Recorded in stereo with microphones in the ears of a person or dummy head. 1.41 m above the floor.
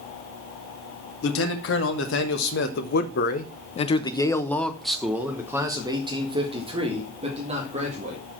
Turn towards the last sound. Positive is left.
turn(degrees=-40)  # may be behind; listen again after turning